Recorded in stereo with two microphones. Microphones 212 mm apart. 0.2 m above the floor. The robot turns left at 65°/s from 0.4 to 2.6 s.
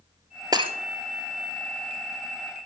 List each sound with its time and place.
0.5 s breaking glass: 20° right (ahead or behind), 1.2 m; by 0.7 s 30° right (ahead or behind), 1.2 m